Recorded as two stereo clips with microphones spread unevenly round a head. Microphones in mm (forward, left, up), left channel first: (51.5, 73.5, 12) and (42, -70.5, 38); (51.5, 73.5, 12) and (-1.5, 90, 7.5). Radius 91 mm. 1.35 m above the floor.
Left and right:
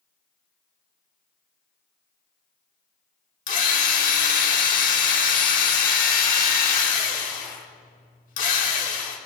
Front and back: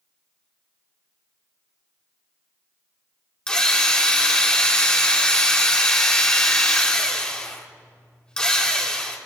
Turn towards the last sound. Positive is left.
turn(degrees=55)